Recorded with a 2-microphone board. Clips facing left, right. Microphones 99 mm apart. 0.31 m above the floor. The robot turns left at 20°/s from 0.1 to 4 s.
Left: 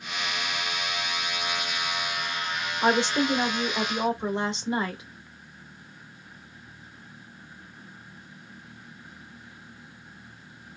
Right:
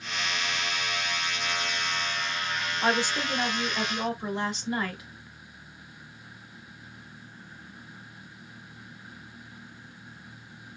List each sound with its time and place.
2.8 s a woman speaking: 20° left (ahead or behind), 1.0 m; by 5.0 s 25° left (ahead or behind), 1.0 m